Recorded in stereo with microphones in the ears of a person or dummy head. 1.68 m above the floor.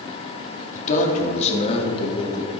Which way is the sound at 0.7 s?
45° left (ahead or behind).